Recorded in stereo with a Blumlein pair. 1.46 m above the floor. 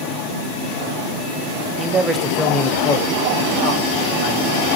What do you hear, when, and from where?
1.8 s a man speaking: 30° right, 0.6 m; by 4.7 s 50° left, 1.6 m